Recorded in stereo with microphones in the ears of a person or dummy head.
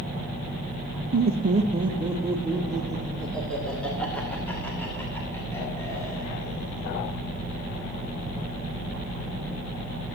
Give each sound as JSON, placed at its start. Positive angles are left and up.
{"t": 1.1, "sound": "laughter", "side_deg": -60, "distance_m": 1.2}